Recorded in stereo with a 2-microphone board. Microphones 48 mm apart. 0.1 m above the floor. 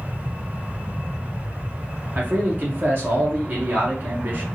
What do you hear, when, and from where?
2.1 s a man speaking: 40° right (ahead or behind), 1.8 m